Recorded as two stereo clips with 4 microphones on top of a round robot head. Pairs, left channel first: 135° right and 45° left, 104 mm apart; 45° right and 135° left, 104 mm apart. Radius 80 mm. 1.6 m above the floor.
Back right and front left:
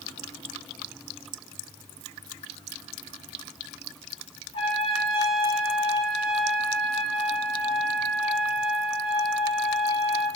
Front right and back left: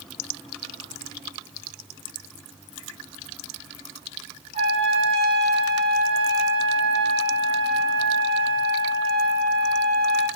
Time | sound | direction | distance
4.5 | a trumpet | 175° left | 5 m